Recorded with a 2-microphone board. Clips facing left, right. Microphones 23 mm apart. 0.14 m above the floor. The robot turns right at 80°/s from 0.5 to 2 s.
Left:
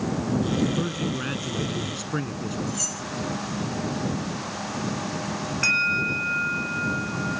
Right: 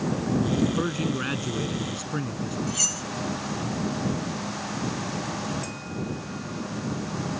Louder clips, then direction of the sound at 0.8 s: Right 1 dB; 20° right (ahead or behind).